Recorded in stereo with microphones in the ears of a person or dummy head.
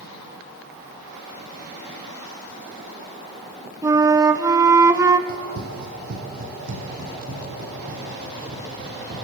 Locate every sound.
3.8 s a flute: 15° right (ahead or behind), 0.8 m
5.3 s running footsteps: 50° right (ahead or behind), 3 m; by 9.1 s 45° right (ahead or behind), 8.5 m